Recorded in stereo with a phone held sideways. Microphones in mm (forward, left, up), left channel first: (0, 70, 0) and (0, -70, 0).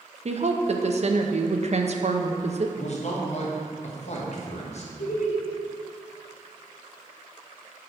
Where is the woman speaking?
50° right (ahead or behind), 0.6 m.